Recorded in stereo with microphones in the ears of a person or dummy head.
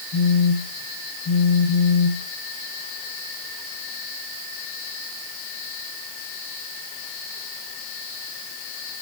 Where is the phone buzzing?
30° left (ahead or behind), 1.5 m.